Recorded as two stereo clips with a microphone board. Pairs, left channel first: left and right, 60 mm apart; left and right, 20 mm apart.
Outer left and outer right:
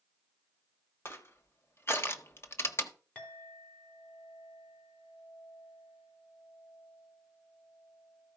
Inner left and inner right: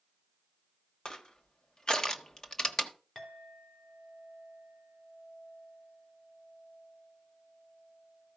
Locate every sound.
1.1 s crushing: 40° left (ahead or behind), 1.1 m
3.1 s a clink: 15° left (ahead or behind), 3.5 m